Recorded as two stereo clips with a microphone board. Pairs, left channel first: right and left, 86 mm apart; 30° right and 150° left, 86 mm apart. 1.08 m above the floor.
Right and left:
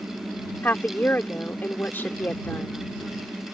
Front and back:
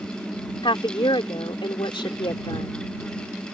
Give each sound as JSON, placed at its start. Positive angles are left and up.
{"t": 0.6, "sound": "a woman speaking", "azimuth_deg": -25}